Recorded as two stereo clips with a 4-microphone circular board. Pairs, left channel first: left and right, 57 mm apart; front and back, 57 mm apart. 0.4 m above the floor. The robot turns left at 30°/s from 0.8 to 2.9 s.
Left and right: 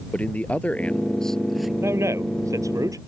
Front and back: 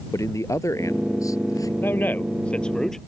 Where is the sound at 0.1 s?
25° left; by 1.7 s 5° right.